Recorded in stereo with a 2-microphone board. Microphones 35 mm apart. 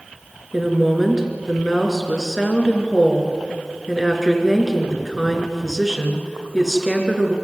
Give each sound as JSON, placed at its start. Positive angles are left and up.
{"t": 0.5, "sound": "a woman speaking", "side_deg": -5, "distance_m": 3.5}